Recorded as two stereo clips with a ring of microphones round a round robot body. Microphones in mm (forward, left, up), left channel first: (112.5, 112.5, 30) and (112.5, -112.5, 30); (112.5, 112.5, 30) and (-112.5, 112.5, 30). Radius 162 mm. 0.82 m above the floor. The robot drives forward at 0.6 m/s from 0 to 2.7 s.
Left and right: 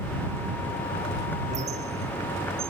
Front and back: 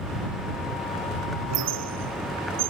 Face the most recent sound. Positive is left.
turn(degrees=-165)